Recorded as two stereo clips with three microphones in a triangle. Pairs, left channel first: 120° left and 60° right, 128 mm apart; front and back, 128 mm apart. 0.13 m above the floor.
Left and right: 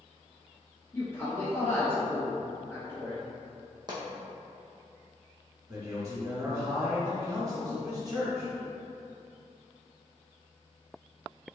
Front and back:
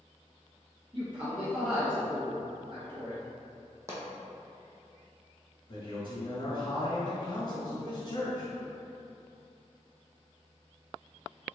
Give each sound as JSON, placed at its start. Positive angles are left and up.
{"t": 0.9, "sound": "a man speaking", "azimuth_deg": 180, "distance_m": 1.7}
{"t": 3.9, "sound": "a pop", "azimuth_deg": -110, "distance_m": 1.1}
{"t": 5.7, "sound": "a man speaking", "azimuth_deg": -20, "distance_m": 1.7}